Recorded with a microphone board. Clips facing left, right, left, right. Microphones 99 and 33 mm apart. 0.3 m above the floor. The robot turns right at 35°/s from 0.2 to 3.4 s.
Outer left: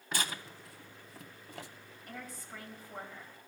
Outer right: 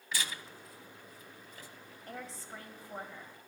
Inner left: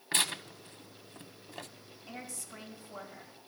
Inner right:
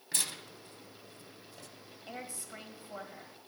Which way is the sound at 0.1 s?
50° left (ahead or behind).